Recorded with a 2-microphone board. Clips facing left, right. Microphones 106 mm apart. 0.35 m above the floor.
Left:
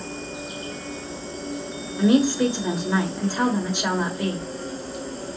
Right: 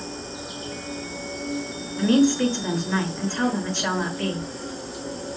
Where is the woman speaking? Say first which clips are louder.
Even; 15° left (ahead or behind), 0.9 m.